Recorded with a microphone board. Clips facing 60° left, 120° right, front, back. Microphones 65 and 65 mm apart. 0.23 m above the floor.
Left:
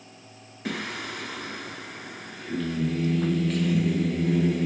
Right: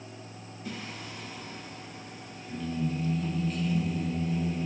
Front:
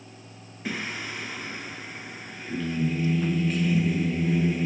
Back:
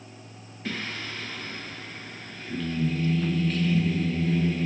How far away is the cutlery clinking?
I don't hear cutlery clinking.